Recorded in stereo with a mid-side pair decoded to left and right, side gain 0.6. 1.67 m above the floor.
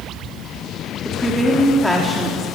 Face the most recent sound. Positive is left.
turn(degrees=5)